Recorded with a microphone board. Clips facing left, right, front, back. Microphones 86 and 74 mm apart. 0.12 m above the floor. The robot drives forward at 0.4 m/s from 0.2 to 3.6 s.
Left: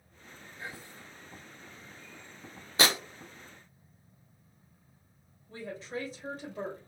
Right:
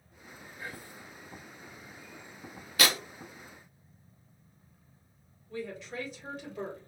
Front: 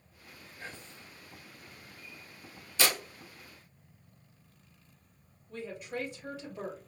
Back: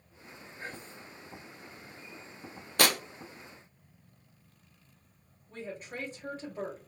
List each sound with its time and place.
0.6 s whispering: 145° left, 2.5 m; by 1.1 s 150° left, 3 m
2.8 s tearing paper: 155° left, 0.7 m
5.5 s a woman speaking: 140° left, 2.5 m